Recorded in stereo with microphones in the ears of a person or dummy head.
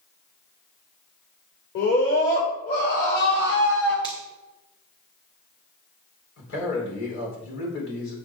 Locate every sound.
1.8 s a scream: 55° left (ahead or behind), 4.5 m; by 3.9 s 65° left (ahead or behind), 6.5 m
4.0 s a finger snap: 20° left (ahead or behind), 2.5 m
6.4 s a man speaking: 60° left (ahead or behind), 4.5 m